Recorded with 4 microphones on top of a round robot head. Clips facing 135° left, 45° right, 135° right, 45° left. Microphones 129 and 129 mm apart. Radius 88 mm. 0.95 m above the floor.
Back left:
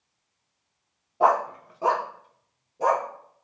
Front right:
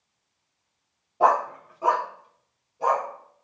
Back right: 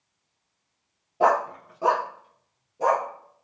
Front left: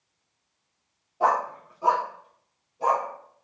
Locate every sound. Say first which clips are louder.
1.2 s a dog barking: even, back right 3 dB; 130° right, 0.5 m; by 3.1 s straight behind, 1.6 m